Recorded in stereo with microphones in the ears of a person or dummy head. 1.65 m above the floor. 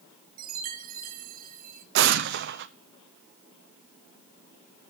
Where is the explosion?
55° right (ahead or behind), 0.8 m.